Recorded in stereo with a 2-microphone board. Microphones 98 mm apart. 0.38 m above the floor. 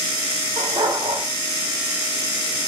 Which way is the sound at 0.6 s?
60° right (ahead or behind).